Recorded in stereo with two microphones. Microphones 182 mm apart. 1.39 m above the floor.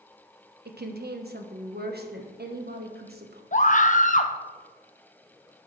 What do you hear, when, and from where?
0.7 s a woman speaking: 60° right (ahead or behind), 1.1 m
3.5 s a scream: 45° left (ahead or behind), 0.7 m